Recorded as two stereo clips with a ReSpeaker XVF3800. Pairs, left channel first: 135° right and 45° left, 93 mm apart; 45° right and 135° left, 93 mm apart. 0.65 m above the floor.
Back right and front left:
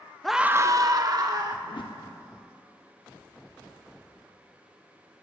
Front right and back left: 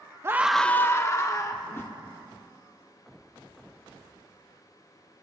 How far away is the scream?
About 0.5 m.